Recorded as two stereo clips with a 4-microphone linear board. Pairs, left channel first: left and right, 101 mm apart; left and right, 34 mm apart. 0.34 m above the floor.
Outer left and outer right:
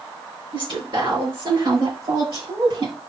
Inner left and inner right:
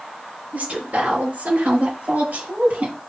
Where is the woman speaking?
55° right (ahead or behind), 5.5 m.